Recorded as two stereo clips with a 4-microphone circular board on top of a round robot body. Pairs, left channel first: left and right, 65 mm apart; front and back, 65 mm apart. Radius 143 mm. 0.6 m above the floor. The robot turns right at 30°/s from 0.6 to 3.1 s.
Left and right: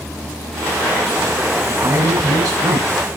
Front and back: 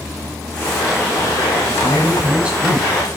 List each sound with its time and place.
1.7 s a man speaking: 130° right, 4.5 m; by 3.0 s 90° right, 4.5 m